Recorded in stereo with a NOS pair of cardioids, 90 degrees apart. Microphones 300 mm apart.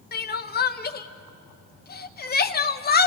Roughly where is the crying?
Ahead left.